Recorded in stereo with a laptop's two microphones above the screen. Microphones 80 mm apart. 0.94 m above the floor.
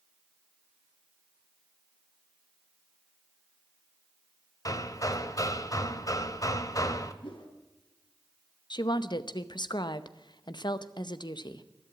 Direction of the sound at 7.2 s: 75° left (ahead or behind).